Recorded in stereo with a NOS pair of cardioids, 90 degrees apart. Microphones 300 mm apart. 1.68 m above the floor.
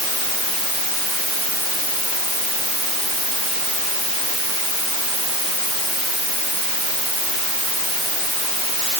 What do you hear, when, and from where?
Only background noise.